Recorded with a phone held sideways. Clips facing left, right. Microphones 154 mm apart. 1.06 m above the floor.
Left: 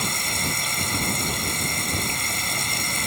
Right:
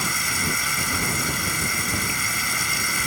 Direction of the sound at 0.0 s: 25° left (ahead or behind).